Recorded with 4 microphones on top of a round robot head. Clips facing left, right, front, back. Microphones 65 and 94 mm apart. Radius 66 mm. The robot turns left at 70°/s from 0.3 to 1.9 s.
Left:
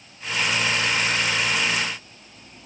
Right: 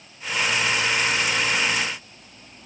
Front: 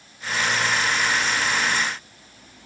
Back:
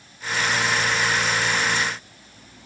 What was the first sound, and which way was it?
Only background noise.